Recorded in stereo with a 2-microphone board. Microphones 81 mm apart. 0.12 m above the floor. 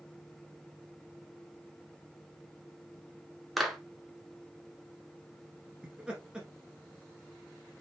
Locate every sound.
3.6 s a clap: centre (ahead or behind), 1.1 m
5.8 s laughter: 10° right (ahead or behind), 1.3 m